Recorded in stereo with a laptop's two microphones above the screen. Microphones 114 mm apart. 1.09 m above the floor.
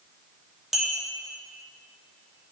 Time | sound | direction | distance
0.7 | a clink | centre (ahead or behind) | 1.0 m